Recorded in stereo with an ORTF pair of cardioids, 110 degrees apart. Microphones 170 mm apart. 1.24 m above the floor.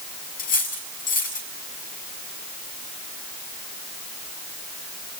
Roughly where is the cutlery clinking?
Ahead left.